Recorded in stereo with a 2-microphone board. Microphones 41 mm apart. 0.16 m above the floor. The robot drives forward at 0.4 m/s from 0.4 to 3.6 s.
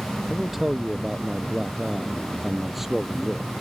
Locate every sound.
0.3 s a man speaking: 5° right (ahead or behind)